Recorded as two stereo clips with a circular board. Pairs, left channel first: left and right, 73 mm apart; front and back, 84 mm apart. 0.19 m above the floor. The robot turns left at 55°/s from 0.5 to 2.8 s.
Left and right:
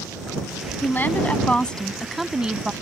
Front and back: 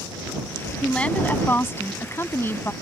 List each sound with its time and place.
0.8 s a woman speaking: 70° left; by 2.7 s 35° right